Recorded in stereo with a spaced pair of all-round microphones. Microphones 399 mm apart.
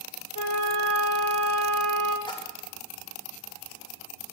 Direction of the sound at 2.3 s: 10° left (ahead or behind).